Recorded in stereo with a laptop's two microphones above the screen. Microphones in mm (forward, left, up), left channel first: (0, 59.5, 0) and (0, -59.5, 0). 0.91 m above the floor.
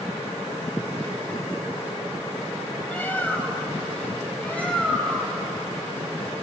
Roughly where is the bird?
Centre.